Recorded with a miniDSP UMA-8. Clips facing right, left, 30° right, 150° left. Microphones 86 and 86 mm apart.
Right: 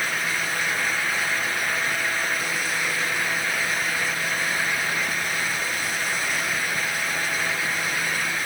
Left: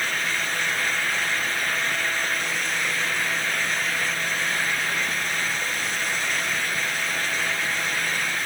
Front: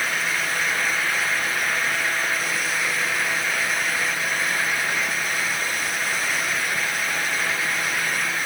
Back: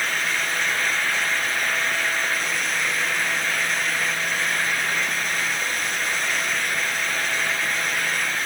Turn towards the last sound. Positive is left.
No sound to turn to.